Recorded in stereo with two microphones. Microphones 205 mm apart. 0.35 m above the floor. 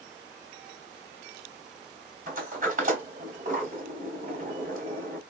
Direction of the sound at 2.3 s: 40° right (ahead or behind).